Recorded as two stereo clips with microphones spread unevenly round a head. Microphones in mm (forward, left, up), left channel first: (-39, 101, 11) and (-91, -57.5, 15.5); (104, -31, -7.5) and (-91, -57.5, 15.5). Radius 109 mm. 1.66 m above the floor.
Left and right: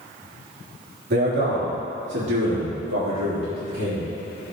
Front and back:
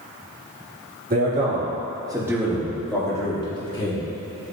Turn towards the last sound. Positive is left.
turn(degrees=-50)